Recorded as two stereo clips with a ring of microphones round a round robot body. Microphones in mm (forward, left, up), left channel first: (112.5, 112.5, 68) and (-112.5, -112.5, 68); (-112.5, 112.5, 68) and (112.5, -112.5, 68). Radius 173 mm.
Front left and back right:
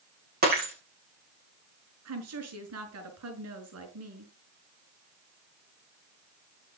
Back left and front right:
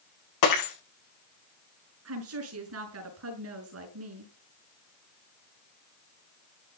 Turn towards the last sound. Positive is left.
turn(degrees=-90)